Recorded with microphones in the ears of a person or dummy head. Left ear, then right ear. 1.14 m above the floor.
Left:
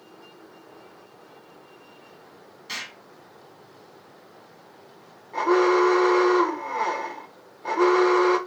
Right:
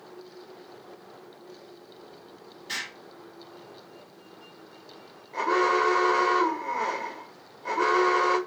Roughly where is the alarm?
Left.